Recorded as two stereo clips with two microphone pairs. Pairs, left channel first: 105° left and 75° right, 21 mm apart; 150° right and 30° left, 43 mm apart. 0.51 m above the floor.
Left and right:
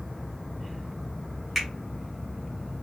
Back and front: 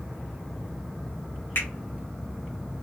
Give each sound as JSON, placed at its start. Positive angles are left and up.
{"t": 1.6, "sound": "a finger snap", "azimuth_deg": -165, "distance_m": 2.0}